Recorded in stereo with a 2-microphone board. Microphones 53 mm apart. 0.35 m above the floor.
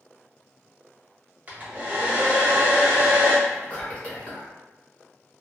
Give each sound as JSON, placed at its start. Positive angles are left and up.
{"t": 1.5, "sound": "a hair dryer", "side_deg": -30, "distance_m": 1.0}
{"t": 3.5, "sound": "whispering", "side_deg": 30, "distance_m": 1.2}